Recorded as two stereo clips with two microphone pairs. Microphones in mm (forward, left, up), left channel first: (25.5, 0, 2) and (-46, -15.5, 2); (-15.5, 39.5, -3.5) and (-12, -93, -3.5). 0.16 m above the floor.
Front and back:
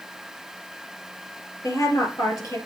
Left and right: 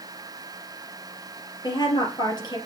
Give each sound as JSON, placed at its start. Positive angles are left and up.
{"t": 1.6, "sound": "a woman speaking", "azimuth_deg": 40, "distance_m": 3.5}